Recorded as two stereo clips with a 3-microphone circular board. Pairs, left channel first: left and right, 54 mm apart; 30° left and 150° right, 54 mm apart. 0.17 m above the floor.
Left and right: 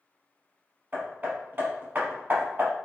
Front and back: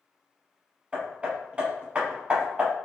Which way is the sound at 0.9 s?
105° right.